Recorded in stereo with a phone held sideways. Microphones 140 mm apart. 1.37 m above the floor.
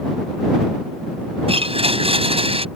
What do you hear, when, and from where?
1.5 s a blender: 40° right (ahead or behind)